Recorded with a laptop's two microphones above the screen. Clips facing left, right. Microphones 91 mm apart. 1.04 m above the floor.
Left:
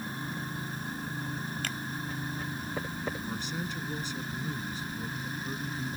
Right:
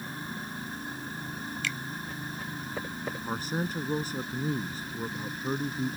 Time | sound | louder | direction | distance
1.6 | a finger snap | right 1 dB | 45° left (ahead or behind) | ?
3.2 | a man speaking | right 4 dB | 45° right (ahead or behind) | ?